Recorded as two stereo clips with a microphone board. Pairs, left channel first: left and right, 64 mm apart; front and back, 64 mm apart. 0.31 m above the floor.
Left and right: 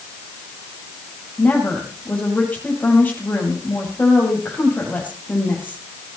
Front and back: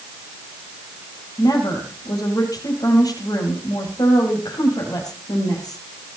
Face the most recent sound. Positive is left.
turn(degrees=25)